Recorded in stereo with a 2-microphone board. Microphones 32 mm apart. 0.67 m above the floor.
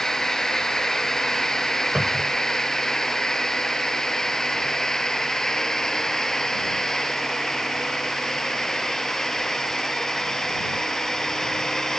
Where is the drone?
20° left (ahead or behind).